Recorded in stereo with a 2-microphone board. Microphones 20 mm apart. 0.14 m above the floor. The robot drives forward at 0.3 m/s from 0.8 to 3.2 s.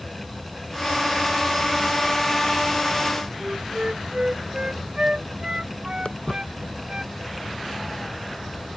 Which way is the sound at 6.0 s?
60° left (ahead or behind).